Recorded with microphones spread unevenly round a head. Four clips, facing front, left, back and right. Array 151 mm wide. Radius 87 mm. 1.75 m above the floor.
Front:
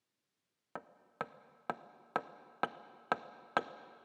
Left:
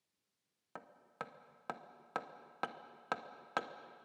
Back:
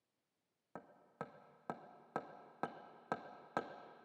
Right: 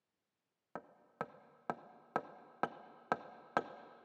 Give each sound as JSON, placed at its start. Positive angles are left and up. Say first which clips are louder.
{"t": 0.8, "sound": "hammering", "louder": "right 3 dB, front 6 dB", "azimuth_deg": -20, "distance_m": 0.7}